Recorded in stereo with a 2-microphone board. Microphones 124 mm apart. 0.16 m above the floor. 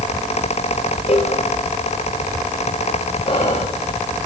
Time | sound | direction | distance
1.1 | a cowbell | 55° left (ahead or behind) | 4 m
3.2 | whispering | 40° left (ahead or behind) | 6 m